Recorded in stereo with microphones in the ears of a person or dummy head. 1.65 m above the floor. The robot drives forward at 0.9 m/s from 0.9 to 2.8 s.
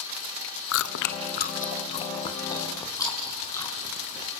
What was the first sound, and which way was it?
Chewing, 75° left (ahead or behind).